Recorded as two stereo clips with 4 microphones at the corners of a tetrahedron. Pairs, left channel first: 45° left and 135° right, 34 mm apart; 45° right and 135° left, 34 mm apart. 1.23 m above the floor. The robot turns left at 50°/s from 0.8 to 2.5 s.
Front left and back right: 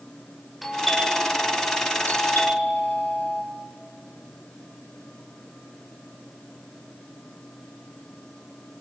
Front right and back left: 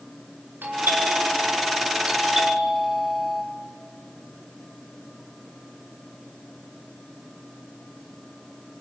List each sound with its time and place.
0.6 s a doorbell: 135° left, 7.5 m; by 3.4 s 50° left, 7.5 m